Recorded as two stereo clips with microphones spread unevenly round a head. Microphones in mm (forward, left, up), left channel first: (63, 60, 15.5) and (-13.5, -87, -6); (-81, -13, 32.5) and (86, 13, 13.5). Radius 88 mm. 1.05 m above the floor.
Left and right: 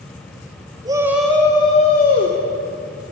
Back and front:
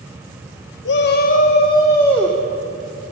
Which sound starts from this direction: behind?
A shout, at 0.8 s.